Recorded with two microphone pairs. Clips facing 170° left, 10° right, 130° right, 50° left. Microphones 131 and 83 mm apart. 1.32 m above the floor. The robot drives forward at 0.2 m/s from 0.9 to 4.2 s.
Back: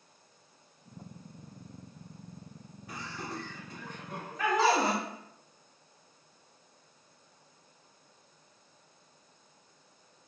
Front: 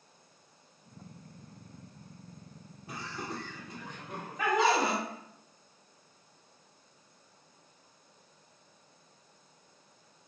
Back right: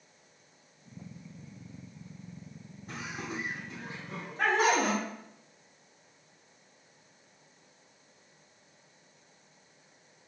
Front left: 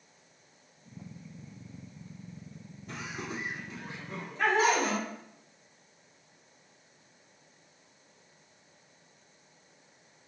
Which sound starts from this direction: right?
Laughter, at 2.9 s.